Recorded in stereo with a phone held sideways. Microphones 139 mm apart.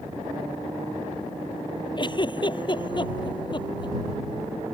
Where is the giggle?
35° left (ahead or behind).